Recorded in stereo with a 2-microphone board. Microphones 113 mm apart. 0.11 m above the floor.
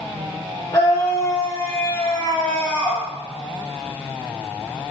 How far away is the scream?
About 3 m.